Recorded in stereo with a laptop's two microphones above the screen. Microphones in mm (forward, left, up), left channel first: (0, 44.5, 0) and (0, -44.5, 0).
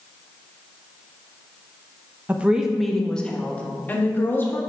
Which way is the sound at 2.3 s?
20° right (ahead or behind).